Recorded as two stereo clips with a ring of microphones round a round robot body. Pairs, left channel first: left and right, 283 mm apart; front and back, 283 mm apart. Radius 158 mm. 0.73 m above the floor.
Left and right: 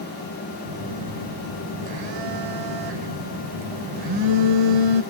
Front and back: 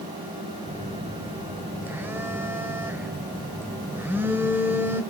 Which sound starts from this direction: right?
A phone buzzing, at 0.7 s.